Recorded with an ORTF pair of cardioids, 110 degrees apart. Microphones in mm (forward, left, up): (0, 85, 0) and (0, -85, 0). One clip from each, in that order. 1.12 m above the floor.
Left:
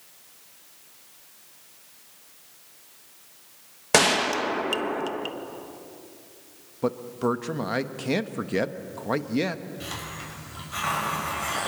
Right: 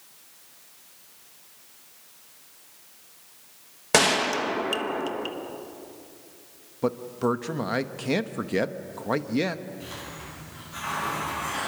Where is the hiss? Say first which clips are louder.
Left 3 dB; 50° left, 7 m.